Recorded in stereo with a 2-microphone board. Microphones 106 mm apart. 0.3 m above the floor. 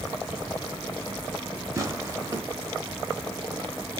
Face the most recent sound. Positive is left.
turn(degrees=-30)  # may be behind; listen again after turning